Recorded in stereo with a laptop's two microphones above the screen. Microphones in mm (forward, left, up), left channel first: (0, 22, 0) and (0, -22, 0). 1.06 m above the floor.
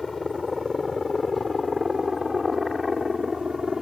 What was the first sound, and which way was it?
A helicopter, centre (ahead or behind).